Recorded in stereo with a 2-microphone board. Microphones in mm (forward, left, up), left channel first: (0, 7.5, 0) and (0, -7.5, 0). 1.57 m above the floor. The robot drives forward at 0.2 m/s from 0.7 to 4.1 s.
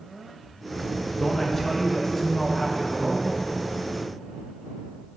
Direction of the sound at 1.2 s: 20° left (ahead or behind).